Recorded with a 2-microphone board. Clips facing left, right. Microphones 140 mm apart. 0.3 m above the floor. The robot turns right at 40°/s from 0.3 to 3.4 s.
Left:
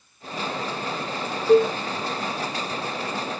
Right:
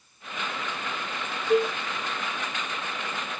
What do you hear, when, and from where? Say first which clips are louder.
1.5 s a cowbell: left 6 dB; 65° left (ahead or behind), 1.2 m; by 1.8 s 75° left (ahead or behind), 1.2 m